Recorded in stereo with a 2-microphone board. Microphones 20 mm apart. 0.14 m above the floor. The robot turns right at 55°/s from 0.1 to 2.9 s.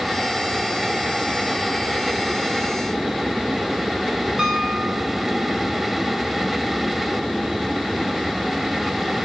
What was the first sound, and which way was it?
A piano, 35° right (ahead or behind).